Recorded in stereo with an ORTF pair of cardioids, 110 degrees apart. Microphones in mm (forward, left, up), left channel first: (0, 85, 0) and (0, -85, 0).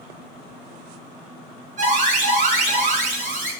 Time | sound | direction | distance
1.8 | an alarm | 50° right | 7.5 m